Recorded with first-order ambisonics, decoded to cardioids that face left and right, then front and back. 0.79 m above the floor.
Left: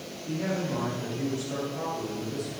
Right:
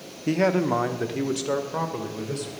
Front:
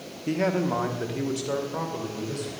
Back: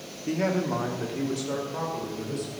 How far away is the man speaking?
About 1.1 m.